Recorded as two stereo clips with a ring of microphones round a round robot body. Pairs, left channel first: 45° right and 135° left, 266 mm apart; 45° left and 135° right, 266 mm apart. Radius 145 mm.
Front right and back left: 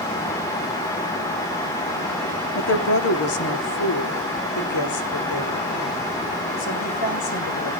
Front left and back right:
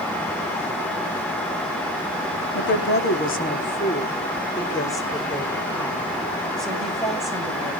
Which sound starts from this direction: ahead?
A woman speaking, at 2.5 s.